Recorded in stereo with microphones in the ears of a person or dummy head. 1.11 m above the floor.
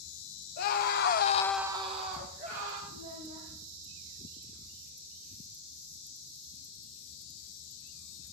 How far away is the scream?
About 1.4 m.